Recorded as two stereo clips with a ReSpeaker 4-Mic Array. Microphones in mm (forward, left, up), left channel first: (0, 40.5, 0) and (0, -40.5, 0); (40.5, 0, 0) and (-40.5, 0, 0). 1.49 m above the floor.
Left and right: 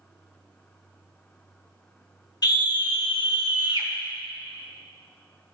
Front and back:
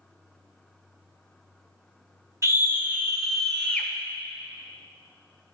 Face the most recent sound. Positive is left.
turn(degrees=70)